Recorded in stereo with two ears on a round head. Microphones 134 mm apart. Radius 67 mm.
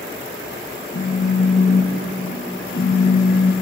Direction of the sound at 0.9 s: 75° left (ahead or behind).